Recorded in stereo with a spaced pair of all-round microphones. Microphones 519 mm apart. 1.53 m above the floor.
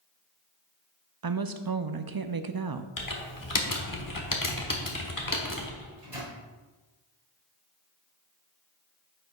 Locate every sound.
1.2 s a woman speaking: 45° right (ahead or behind), 0.5 m
3.0 s typing on a keyboard: 40° left (ahead or behind), 1.1 m
5.8 s a microwave: 80° right, 2.5 m